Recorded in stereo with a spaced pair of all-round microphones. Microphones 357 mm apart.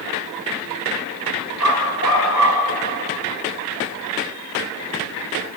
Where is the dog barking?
55° left (ahead or behind), 5 m.